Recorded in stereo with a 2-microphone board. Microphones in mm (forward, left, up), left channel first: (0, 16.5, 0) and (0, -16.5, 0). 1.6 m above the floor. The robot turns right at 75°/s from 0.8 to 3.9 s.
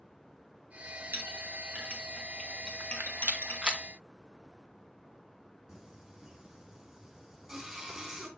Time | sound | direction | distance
1.1 | a clink | 70° right (ahead or behind) | 2 m
2.8 | a rattle | 75° right (ahead or behind) | 1.3 m
5.7 | singing | 5° right (ahead or behind) | 3 m